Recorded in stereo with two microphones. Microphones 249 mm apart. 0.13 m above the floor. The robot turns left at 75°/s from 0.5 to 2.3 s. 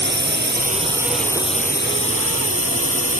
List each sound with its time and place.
0.0 s a drone: 130° right; by 3.2 s 95° left